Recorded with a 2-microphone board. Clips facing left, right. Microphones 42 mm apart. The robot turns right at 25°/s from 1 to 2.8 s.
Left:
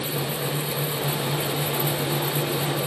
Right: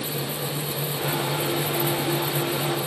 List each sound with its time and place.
Only background noise.